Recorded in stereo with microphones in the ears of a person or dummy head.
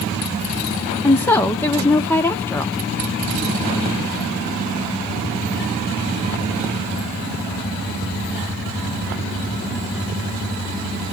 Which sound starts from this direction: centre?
A woman speaking, at 1.0 s.